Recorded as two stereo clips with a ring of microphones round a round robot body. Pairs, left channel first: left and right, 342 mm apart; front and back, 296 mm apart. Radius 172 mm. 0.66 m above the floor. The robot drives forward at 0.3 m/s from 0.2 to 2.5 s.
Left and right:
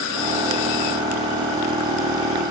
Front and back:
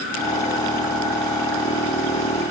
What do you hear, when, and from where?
Only background noise.